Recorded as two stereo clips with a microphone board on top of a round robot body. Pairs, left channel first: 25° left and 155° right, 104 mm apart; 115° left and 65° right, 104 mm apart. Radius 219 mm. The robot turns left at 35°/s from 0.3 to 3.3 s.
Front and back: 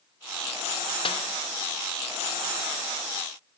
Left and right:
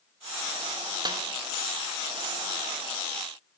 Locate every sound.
1.1 s a snare drum: 15° right, 0.7 m; by 1.2 s 20° right, 0.7 m